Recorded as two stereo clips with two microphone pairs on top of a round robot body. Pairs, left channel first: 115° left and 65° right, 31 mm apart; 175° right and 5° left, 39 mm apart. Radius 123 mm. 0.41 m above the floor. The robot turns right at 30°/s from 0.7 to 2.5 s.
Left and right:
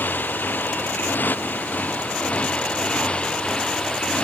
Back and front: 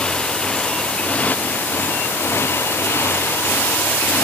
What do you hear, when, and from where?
0.0 s a motorcycle: 115° left; by 4.2 s 170° left